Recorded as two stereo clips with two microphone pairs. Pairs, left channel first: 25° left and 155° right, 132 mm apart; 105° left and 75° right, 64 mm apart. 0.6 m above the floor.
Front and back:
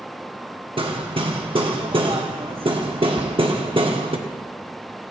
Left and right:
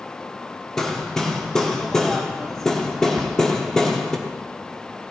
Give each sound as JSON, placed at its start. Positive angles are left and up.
{"t": 0.8, "sound": "hammering", "azimuth_deg": 180, "distance_m": 1.2}
{"t": 3.2, "sound": "a cupboard door", "azimuth_deg": -120, "distance_m": 0.5}